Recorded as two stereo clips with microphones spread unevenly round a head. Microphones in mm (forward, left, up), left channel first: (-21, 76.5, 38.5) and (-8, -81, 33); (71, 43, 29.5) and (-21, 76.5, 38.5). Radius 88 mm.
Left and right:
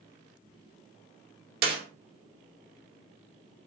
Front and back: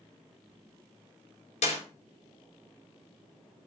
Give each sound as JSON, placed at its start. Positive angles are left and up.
{"t": 1.6, "sound": "a clap", "azimuth_deg": -50, "distance_m": 3.5}